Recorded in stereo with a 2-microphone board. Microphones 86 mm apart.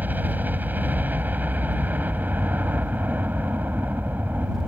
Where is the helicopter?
20° right (ahead or behind).